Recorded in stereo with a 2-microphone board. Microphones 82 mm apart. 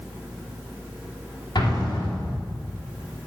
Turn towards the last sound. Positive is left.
turn(degrees=60)  # may be behind; listen again after turning